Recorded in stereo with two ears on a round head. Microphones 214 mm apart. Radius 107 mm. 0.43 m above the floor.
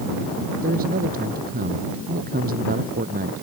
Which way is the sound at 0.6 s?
40° right (ahead or behind).